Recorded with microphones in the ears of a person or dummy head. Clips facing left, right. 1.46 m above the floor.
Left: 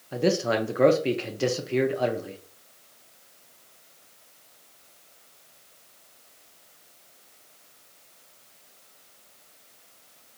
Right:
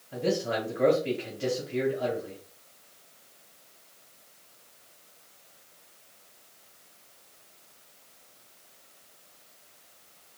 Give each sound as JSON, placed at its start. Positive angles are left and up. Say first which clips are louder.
{"t": 0.1, "sound": "a man speaking", "louder": "left 4 dB", "side_deg": 65, "distance_m": 0.8}